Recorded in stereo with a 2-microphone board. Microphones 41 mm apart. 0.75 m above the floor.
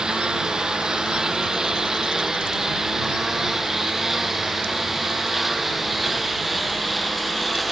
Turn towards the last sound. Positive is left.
turn(degrees=0)  # may be behind; listen again after turning